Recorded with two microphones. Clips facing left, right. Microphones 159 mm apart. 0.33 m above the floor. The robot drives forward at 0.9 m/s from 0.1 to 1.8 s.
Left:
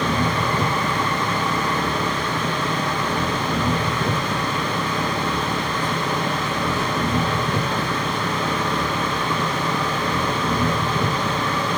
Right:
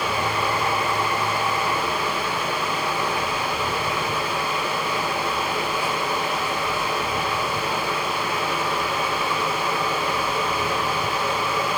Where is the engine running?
60° left (ahead or behind).